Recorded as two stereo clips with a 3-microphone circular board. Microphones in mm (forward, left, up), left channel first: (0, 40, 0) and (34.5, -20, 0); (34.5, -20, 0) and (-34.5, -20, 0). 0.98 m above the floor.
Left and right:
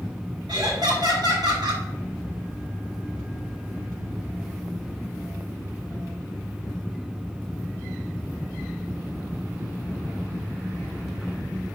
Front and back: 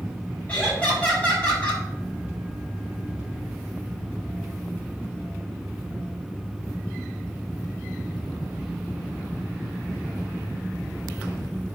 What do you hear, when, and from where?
0.5 s laughter: 70° right, 6 m